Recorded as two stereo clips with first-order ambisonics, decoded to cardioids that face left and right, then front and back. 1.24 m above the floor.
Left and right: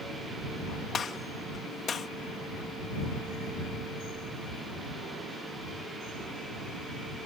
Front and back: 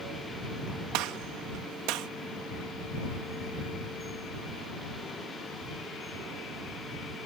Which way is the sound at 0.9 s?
155° left.